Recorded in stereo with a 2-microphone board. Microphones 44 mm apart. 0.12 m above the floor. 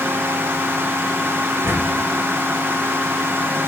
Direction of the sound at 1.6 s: 75° right (ahead or behind).